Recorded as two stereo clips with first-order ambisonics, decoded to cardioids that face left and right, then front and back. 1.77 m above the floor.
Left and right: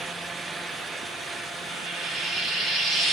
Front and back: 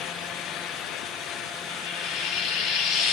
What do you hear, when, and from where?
1.7 s frying: 25° right, 1.6 m